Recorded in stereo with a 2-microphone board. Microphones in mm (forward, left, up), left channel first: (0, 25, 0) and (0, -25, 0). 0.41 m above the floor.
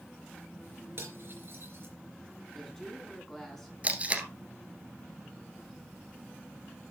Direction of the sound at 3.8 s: 25° right (ahead or behind).